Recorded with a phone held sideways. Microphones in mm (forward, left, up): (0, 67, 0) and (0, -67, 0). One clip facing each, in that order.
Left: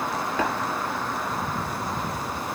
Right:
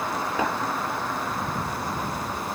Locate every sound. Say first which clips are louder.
0.4 s tapping: even; 10° right (ahead or behind), 6.5 m